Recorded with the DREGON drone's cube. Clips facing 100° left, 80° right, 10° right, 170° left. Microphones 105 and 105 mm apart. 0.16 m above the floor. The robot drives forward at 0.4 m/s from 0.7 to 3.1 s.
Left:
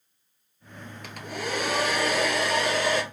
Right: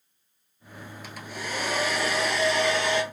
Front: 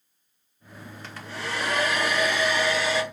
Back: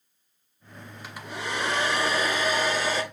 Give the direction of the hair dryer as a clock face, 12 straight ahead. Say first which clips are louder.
Left 4 dB, back 1 dB; 9 o'clock.